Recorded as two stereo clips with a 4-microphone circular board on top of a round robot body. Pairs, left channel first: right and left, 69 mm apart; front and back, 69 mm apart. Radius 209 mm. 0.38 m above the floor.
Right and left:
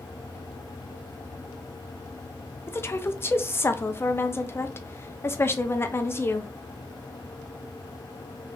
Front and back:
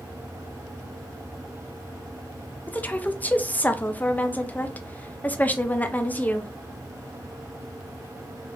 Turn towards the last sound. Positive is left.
turn(degrees=-55)